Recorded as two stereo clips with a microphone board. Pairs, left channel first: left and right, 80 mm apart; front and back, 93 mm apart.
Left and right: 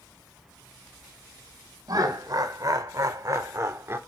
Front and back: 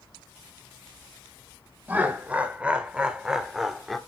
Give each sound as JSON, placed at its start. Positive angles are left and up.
{"t": 1.9, "sound": "laughter", "azimuth_deg": -110, "distance_m": 2.0}